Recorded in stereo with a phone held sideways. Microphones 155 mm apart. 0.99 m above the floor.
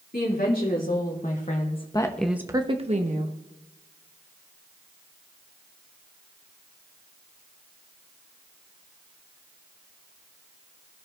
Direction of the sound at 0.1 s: 70° left (ahead or behind).